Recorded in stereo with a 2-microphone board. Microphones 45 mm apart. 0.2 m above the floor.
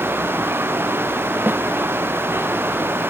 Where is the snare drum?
45° right (ahead or behind).